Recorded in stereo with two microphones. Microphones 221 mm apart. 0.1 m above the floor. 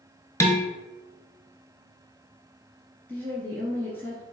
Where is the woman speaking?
10° left (ahead or behind), 1.8 m.